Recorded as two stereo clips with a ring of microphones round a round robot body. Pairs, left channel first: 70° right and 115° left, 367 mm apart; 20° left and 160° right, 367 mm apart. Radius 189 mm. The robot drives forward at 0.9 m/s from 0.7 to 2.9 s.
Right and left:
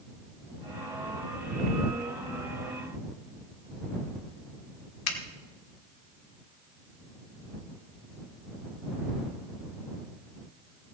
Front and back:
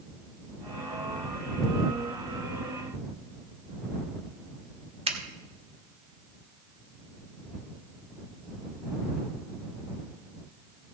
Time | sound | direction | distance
5.1 | a finger snap | 90° right | 1.5 m